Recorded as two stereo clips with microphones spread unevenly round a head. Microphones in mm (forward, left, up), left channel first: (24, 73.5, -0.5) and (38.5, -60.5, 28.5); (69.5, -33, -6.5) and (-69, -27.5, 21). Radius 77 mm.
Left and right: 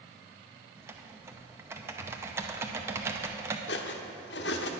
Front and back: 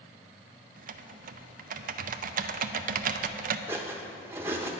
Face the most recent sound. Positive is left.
turn(degrees=110)